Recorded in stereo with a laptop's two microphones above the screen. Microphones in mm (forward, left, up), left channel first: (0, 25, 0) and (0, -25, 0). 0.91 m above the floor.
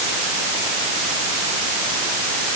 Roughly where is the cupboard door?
No cupboard door in this recording.